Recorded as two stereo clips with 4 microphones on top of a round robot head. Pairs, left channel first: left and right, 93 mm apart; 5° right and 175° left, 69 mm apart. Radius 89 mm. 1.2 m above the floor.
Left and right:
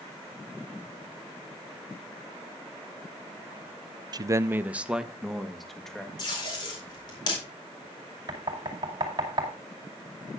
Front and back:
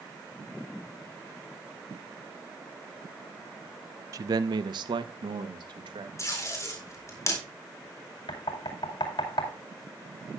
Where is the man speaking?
140° right, 0.5 m; by 6.1 s 175° left, 1.7 m.